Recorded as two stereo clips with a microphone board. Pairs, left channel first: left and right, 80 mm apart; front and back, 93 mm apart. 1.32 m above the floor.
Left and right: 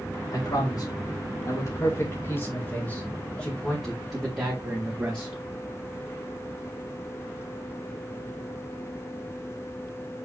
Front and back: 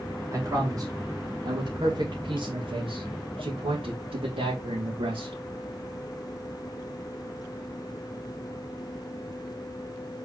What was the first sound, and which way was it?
A man speaking, 120° left.